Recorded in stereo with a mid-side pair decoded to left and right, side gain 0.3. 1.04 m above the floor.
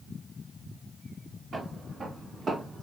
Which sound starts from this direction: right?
Footsteps, at 1.5 s.